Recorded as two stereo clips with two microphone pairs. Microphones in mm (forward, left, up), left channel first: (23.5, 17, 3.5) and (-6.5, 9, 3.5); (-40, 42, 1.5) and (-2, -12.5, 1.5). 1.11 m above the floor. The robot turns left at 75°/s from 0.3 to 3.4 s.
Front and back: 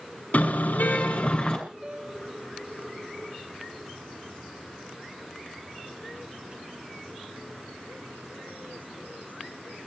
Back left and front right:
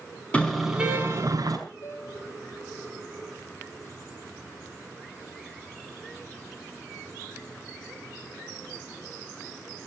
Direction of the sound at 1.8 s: 130° left.